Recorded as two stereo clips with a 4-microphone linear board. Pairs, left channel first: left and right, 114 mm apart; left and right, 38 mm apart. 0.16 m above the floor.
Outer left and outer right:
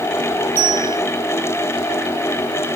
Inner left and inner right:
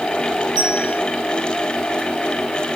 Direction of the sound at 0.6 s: 15° right (ahead or behind).